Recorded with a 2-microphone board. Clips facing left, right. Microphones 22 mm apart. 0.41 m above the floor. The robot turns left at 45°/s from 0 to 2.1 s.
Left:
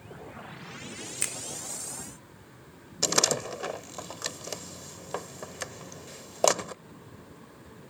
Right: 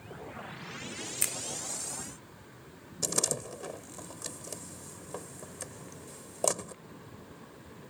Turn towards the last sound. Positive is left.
turn(degrees=45)  # may be behind; listen again after turning